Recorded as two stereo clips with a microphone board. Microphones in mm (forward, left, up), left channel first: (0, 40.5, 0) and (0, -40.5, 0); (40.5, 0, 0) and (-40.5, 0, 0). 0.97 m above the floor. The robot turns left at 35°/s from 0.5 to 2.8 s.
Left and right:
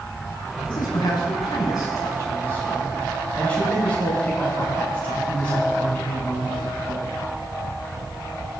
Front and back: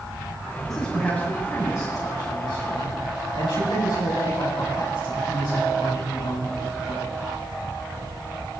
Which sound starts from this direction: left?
A man speaking, at 0.7 s.